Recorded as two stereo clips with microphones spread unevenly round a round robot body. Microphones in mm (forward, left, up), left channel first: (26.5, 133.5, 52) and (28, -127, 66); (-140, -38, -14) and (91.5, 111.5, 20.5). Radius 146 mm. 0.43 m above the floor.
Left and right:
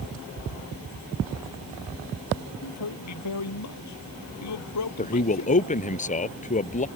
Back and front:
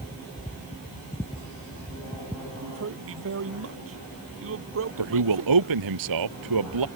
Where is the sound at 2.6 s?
75° left.